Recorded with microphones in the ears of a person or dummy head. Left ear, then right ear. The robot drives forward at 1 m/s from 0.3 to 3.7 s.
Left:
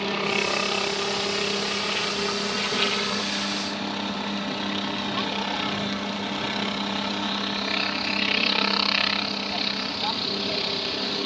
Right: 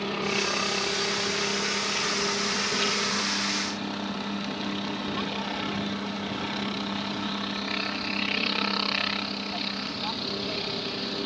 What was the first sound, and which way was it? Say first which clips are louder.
A helicopter: left 3 dB; 20° left (ahead or behind).